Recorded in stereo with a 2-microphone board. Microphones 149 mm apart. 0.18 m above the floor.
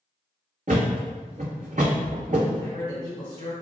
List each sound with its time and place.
0.7 s a thud: 60° right (ahead or behind), 1.5 m
2.6 s a man speaking: 40° right (ahead or behind), 1.9 m